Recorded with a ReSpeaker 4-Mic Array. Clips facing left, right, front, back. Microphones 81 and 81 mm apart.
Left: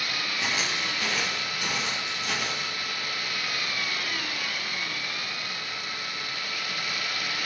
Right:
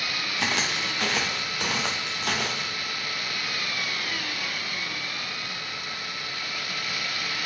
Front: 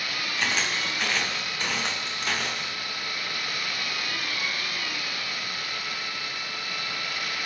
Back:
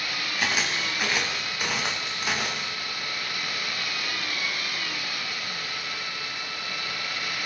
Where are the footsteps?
100° right, 4.5 m.